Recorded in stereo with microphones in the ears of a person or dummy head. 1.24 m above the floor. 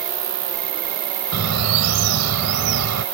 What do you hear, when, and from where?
0.0 s an insect: 70° right (ahead or behind)
1.3 s a bird: 85° right